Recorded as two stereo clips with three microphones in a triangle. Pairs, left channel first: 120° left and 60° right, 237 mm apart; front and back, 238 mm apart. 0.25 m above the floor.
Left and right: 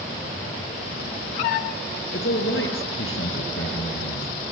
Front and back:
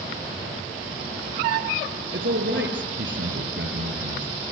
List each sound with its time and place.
2.1 s a man speaking: 145° left, 5 m